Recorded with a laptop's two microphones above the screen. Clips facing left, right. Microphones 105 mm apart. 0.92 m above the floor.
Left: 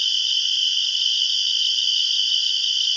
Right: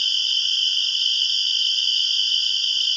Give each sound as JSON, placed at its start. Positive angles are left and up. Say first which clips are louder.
{"t": 0.0, "sound": "an insect", "louder": "even", "side_deg": -35}